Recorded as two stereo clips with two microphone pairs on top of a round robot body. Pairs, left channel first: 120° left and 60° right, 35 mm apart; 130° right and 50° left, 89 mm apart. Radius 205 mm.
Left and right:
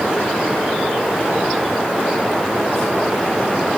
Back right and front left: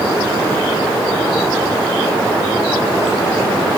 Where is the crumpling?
I don't hear crumpling.